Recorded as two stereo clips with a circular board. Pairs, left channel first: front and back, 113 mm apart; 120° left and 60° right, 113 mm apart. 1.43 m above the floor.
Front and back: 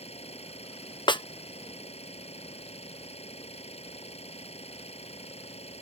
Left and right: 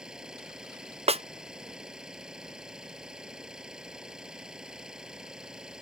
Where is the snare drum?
45° right.